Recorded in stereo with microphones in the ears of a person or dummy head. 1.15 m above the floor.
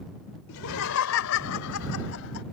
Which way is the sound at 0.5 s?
75° left (ahead or behind).